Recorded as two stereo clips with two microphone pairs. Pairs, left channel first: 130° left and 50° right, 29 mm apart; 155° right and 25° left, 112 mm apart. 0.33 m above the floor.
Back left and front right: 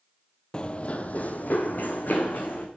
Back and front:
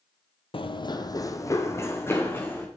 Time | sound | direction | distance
0.5 | running footsteps | straight behind | 0.5 m